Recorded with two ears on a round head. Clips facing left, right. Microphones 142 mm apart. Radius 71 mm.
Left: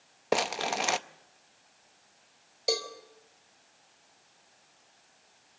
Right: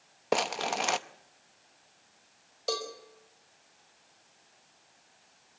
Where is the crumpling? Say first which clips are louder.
Even; 5° left (ahead or behind), 0.5 m.